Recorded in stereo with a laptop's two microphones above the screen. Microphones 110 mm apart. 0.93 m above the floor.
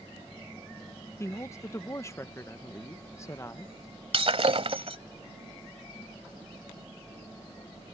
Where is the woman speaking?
25° left (ahead or behind).